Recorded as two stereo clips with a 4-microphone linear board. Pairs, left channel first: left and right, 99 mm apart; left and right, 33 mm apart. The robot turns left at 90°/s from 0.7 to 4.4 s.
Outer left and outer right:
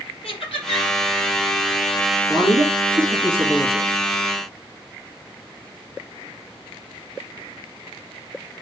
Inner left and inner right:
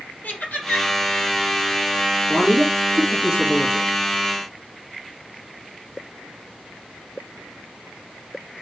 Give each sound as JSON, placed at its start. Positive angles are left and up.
{"t": 0.2, "sound": "laughter", "side_deg": 70, "distance_m": 4.0}
{"t": 2.3, "sound": "a man speaking", "azimuth_deg": -60, "distance_m": 2.5}